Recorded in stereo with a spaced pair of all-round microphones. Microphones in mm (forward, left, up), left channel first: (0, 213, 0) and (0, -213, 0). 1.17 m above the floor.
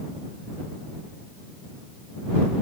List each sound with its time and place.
Only background noise.